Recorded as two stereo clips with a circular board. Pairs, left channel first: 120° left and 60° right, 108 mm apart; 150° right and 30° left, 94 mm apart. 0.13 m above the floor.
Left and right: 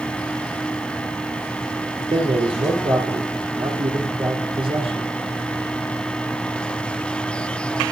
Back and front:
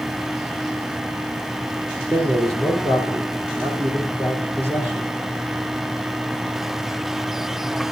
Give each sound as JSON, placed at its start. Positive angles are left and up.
{"t": 2.1, "sound": "a man speaking", "azimuth_deg": -30, "distance_m": 3.0}